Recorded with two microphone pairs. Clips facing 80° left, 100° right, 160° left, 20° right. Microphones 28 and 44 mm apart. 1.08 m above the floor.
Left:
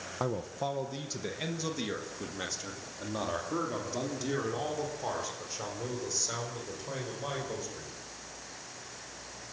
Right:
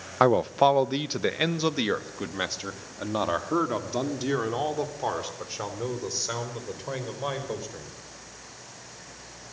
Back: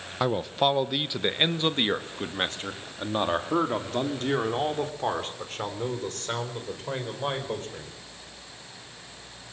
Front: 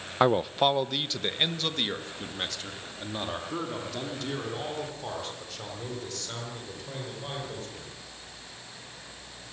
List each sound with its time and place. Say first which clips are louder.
0.2 s a man speaking: right 14 dB, front 2 dB; 95° right, 0.5 m; by 7.9 s 160° right, 5 m